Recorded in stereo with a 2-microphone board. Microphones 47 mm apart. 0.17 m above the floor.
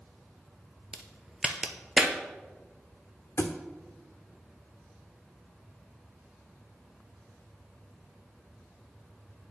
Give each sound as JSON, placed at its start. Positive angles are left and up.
{"t": 0.9, "sound": "a crack", "side_deg": -15, "distance_m": 0.7}
{"t": 3.4, "sound": "a thud", "side_deg": 65, "distance_m": 0.9}